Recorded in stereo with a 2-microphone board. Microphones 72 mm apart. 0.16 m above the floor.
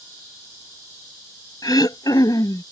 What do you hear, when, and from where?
1.6 s throat clearing: 65° left (ahead or behind)